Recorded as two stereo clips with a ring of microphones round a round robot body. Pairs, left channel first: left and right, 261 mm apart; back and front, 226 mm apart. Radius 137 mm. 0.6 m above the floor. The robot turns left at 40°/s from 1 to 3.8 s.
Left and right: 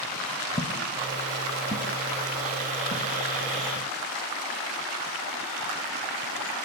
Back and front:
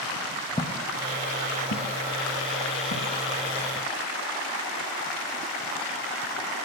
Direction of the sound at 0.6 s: 135° left.